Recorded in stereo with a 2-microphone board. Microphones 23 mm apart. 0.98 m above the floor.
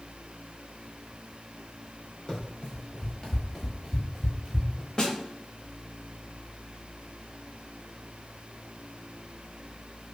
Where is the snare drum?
35° left (ahead or behind), 0.8 m.